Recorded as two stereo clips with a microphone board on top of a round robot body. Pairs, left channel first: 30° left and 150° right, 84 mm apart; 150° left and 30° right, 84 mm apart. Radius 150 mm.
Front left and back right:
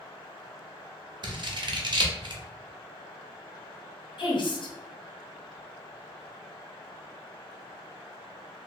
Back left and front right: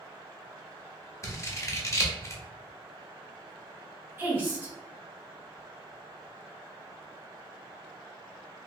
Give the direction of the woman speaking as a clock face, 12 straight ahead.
11 o'clock.